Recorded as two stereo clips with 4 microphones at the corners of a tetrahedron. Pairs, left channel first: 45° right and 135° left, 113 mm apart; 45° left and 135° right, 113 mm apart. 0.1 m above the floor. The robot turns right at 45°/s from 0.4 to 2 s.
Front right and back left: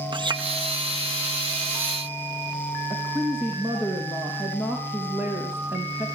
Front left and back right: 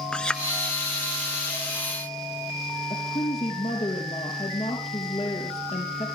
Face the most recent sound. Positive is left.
turn(degrees=65)